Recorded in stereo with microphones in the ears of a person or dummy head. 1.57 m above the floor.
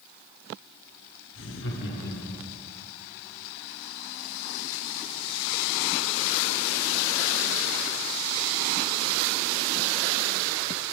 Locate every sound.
1.3 s laughter: 75° left (ahead or behind), 1.3 m; by 2.5 s 40° left (ahead or behind), 1.1 m